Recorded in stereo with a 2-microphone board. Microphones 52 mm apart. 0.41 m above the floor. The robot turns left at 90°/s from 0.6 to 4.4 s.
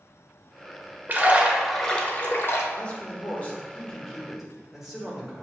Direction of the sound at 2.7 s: 135° left.